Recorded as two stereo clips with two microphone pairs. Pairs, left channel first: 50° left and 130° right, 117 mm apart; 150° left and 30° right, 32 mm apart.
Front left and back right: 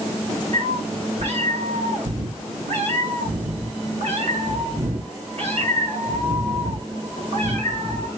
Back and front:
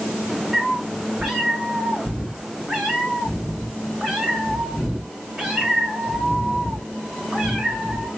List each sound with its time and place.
0.5 s a cat meowing: 110° right, 3 m